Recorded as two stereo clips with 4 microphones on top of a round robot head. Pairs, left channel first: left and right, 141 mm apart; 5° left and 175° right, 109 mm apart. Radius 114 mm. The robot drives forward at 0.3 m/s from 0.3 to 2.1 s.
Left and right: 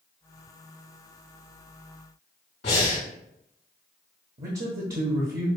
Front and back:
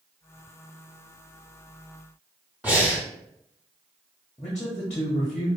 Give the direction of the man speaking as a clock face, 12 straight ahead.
3 o'clock.